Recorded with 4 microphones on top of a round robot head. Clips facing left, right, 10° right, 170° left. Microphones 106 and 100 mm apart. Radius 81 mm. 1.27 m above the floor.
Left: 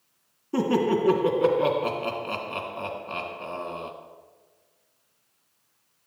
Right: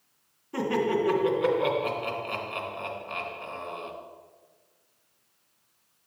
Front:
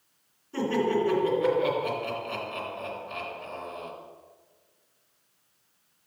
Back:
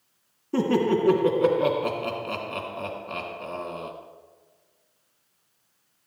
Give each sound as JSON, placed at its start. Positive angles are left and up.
{"t": 0.5, "sound": "laughter", "azimuth_deg": 145, "distance_m": 3.0}